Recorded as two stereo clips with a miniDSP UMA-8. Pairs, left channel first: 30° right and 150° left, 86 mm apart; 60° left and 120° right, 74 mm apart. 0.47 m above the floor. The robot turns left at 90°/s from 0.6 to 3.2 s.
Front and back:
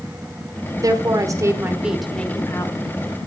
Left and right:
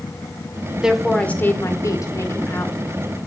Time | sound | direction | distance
0.8 | a woman speaking | 170° left | 1.5 m